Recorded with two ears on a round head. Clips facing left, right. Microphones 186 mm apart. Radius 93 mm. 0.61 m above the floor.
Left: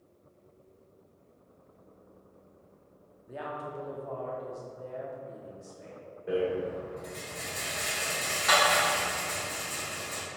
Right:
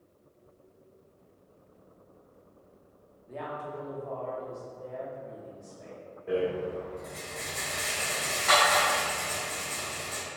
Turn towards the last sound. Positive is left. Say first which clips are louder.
# even
turn(degrees=20)  # may be behind; listen again after turning